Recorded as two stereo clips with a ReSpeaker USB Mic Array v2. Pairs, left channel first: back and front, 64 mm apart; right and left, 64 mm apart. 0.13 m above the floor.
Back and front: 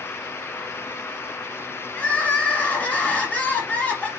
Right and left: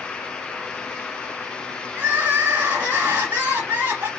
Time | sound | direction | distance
1.9 | crying | 130° left | 1.5 m